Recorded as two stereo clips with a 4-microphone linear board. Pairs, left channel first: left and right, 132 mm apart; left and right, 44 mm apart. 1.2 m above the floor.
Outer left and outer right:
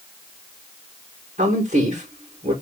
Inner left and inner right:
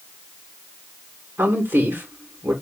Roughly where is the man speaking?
Right.